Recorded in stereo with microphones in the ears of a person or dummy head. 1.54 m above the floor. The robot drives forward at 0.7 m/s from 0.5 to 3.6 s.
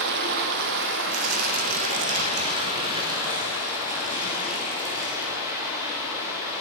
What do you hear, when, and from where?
0.0 s running water: 60° right (ahead or behind), 0.8 m; by 6.6 s 20° right (ahead or behind), 2 m
1.1 s tearing paper: 80° right, 1.4 m; by 5.3 s 35° right (ahead or behind), 2.5 m